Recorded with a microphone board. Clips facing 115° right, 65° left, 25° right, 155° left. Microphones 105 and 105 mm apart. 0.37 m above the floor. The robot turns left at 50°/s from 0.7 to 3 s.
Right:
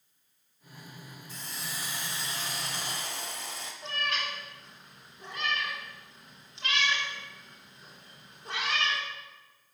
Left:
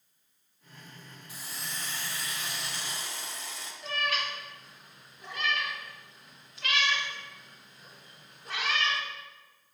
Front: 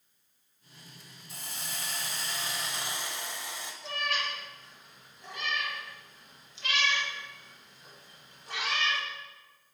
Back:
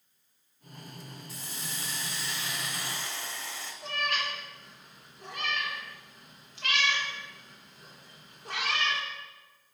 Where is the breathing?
I don't hear breathing.